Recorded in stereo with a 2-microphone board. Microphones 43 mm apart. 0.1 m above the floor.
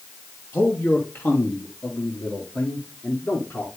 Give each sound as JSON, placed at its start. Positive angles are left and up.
{"t": 0.5, "sound": "a man speaking", "side_deg": 45, "distance_m": 3.5}